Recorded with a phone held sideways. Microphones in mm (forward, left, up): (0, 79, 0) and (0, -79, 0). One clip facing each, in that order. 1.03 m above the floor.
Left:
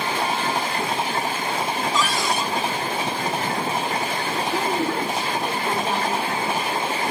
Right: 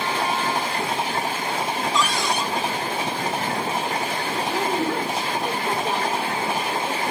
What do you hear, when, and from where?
1.9 s a cupboard door: 5° left (ahead or behind), 1.9 m
4.4 s a woman speaking: centre (ahead or behind), 3.5 m